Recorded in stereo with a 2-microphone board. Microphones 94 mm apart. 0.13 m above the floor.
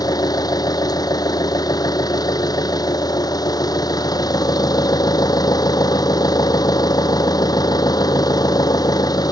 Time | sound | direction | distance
0.0 | an engine running | 40° left (ahead or behind) | ?